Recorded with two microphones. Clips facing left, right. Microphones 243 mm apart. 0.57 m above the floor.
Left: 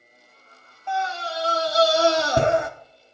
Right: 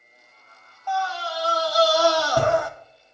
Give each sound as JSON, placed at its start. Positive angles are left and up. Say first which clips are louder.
{"t": 0.9, "sound": "a scream", "louder": "even", "side_deg": 25, "distance_m": 1.0}